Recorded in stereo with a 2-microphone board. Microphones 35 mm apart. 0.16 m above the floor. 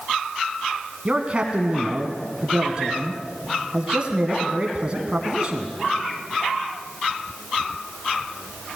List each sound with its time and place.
1.1 s a man speaking: 30° right (ahead or behind), 1.4 m